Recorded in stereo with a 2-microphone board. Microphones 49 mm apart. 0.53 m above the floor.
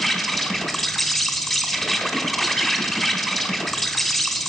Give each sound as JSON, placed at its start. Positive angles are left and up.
{"t": 0.0, "sound": "an insect", "side_deg": 5, "distance_m": 1.7}